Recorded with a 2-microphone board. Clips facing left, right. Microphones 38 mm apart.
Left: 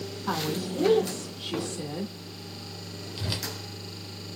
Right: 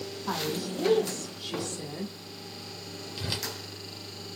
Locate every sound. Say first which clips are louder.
0.3 s a woman speaking: left 2 dB; 20° left (ahead or behind), 1.3 m
3.2 s a whoosh: left 1 dB; centre (ahead or behind), 0.9 m